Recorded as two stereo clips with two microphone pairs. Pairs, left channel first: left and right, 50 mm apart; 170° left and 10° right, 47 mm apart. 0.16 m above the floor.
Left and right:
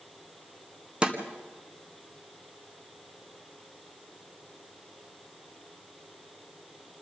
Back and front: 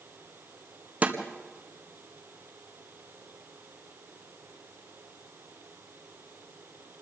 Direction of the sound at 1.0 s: 35° right.